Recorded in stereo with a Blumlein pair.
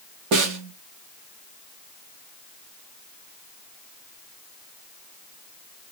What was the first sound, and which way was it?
A snare drum, 40° right.